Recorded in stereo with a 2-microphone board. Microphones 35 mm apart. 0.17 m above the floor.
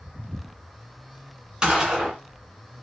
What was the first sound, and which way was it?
A gunshot, 15° right (ahead or behind).